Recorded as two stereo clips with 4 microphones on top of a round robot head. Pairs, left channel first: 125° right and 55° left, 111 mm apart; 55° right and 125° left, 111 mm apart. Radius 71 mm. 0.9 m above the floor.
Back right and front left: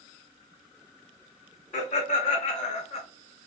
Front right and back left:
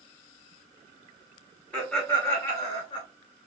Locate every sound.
1.7 s laughter: 130° right, 2 m; by 3.0 s 95° right, 1.4 m